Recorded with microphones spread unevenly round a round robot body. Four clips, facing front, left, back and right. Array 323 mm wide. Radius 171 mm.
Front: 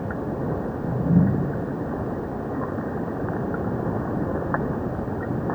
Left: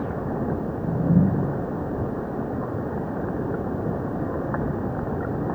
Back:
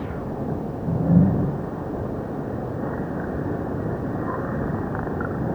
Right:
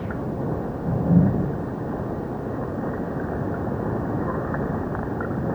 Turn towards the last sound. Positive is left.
No sound to turn to.